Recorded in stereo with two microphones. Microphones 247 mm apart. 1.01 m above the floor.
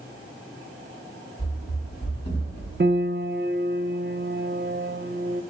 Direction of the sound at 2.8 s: 40° right (ahead or behind).